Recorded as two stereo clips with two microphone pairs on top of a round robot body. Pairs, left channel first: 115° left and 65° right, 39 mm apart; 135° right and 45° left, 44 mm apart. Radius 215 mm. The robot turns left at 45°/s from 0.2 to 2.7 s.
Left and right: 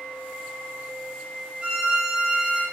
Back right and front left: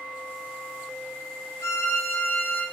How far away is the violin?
About 0.7 m.